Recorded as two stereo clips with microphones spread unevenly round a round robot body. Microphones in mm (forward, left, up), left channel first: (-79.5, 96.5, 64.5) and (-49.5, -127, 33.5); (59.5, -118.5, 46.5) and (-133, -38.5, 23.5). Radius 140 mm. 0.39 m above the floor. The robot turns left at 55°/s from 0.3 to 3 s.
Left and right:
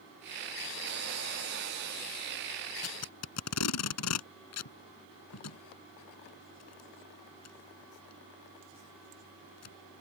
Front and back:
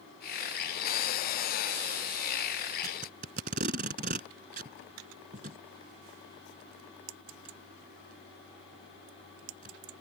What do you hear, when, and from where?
2.8 s tape being pulled: 105° left; by 9.8 s 100° left